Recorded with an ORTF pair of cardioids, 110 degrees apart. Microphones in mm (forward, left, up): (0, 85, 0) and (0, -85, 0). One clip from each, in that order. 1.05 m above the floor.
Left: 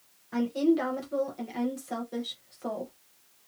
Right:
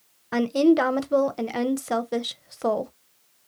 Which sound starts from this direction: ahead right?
A woman speaking, at 0.3 s.